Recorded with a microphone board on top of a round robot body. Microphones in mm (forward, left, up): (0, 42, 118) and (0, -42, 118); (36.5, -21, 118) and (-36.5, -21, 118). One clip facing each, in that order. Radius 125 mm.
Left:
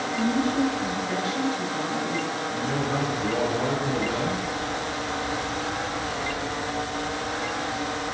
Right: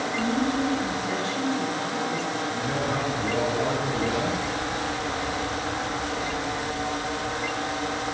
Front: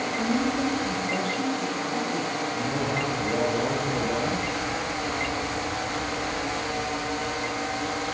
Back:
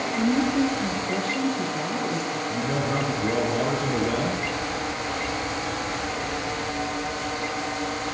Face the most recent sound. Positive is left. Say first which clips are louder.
# left 2 dB, back 4 dB
turn(degrees=180)